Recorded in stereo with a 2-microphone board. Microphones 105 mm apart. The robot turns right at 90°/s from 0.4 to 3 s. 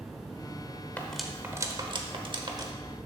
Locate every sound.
1.0 s cutlery clinking: 15° left (ahead or behind), 0.9 m; by 2.7 s 35° right (ahead or behind), 0.9 m